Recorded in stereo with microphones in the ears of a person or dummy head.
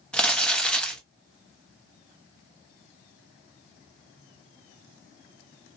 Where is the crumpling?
Centre (ahead or behind), 0.6 m.